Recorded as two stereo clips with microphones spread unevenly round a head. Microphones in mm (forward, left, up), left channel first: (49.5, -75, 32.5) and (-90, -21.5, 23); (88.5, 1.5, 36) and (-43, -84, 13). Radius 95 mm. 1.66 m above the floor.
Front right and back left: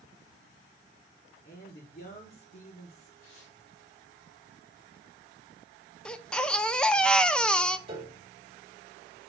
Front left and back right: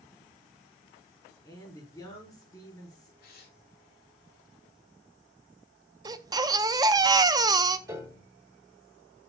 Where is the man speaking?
35° right, 4.5 m.